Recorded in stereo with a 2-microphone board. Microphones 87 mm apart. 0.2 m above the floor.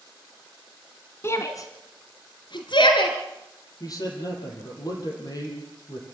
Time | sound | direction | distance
1.2 | a shout | 30° left (ahead or behind) | 1.5 m
3.8 | a man speaking | 45° left (ahead or behind) | 6 m